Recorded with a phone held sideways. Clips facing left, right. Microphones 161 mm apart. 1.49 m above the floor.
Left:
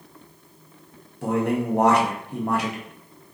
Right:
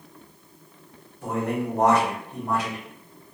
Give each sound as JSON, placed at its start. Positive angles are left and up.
{"t": 1.2, "sound": "a man speaking", "side_deg": 75, "distance_m": 1.0}